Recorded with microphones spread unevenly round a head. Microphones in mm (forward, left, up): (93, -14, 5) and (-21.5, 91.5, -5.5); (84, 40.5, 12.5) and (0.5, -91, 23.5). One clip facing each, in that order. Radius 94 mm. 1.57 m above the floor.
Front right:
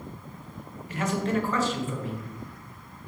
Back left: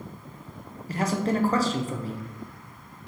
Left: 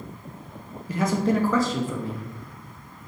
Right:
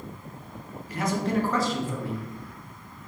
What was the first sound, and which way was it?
A man speaking, 80° left.